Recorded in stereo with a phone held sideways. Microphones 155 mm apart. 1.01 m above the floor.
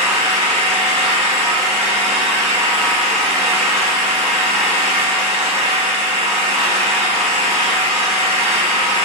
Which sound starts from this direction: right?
An engine running, at 0.0 s.